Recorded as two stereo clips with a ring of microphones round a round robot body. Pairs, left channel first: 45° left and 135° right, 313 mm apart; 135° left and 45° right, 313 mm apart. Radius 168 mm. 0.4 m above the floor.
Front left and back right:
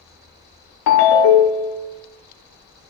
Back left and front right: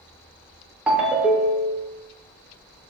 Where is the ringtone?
40° left, 0.6 m.